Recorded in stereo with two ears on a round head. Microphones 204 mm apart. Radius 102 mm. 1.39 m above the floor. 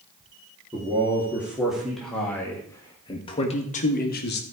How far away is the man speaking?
About 2.5 m.